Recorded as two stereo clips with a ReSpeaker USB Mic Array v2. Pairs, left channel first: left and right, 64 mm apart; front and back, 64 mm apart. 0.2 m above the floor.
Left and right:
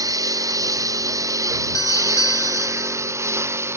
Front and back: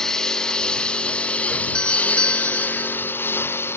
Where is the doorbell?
75° left.